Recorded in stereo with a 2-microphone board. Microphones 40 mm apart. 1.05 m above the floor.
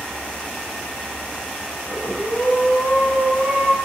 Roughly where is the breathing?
Right.